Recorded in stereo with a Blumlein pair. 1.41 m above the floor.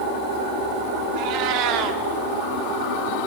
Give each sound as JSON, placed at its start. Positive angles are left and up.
{"t": 1.1, "sound": "a cat meowing", "azimuth_deg": -40, "distance_m": 2.0}